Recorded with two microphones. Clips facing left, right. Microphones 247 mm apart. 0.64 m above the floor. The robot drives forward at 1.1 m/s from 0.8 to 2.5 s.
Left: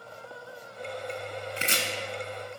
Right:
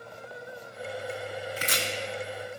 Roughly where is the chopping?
Left.